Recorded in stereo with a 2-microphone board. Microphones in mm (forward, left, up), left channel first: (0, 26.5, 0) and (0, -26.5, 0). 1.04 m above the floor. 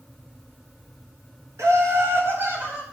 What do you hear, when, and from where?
1.6 s laughter: 65° right (ahead or behind), 1.9 m; by 2.8 s 35° right (ahead or behind), 3 m